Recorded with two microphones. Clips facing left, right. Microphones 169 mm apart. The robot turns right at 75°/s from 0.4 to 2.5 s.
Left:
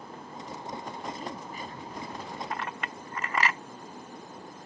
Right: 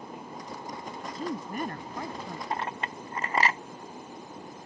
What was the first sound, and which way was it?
A woman speaking, 160° right.